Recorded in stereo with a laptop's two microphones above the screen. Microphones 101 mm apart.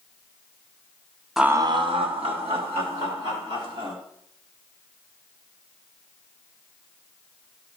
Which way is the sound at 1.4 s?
Centre (ahead or behind).